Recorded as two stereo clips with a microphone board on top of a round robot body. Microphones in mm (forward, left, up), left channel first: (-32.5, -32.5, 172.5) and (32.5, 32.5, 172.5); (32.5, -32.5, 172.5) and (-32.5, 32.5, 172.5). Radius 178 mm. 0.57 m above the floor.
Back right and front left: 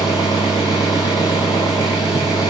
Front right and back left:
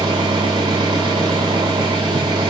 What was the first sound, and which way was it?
An engine running, 175° left.